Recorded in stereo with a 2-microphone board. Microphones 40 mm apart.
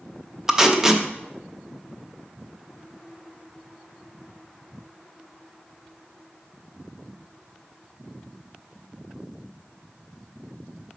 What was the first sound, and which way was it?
Tape being pulled, 10° right (ahead or behind).